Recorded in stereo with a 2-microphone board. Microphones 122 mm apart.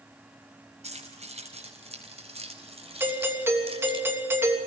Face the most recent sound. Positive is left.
turn(degrees=-20)  # may be behind; listen again after turning